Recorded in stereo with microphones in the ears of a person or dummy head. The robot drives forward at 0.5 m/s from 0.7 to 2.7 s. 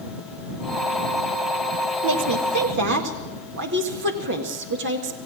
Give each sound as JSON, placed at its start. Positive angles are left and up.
{"t": 2.0, "sound": "a woman speaking", "side_deg": -55, "distance_m": 1.5}